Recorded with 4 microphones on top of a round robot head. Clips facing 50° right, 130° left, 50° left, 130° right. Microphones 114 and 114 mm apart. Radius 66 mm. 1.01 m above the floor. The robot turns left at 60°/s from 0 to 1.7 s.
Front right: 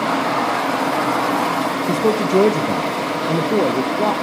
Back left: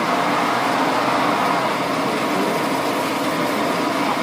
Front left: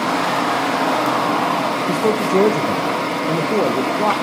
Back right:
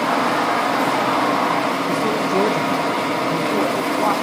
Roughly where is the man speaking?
Ahead.